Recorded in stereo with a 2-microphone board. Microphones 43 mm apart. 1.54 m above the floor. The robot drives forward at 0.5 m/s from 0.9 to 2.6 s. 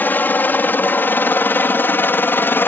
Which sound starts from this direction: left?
A helicopter, at 0.0 s.